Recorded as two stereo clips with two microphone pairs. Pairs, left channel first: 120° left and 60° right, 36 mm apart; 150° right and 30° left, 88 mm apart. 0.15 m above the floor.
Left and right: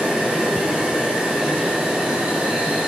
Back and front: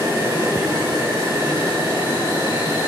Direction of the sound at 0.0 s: 10° right.